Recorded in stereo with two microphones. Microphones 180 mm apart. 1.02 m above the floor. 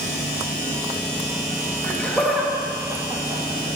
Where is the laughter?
15° left (ahead or behind), 1.9 m; by 3.8 s 40° right (ahead or behind), 2.5 m.